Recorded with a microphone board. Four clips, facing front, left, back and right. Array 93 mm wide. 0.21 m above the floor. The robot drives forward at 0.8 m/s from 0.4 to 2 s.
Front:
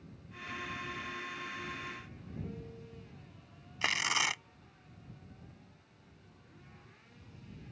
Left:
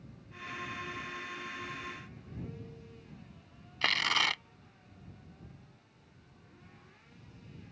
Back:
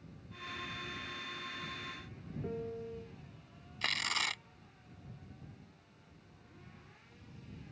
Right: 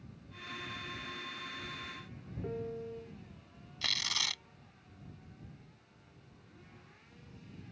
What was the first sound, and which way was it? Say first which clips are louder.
A piano: right 8 dB, back 6 dB; 125° right.